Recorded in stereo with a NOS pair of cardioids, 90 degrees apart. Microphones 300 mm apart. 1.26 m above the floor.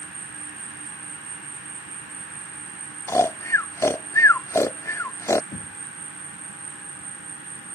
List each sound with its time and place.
0.0 s an insect: 40° right
3.1 s snoring: 10° left
5.5 s knocking: 30° left